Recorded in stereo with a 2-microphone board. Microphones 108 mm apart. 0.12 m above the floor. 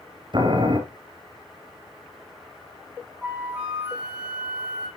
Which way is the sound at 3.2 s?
10° right (ahead or behind).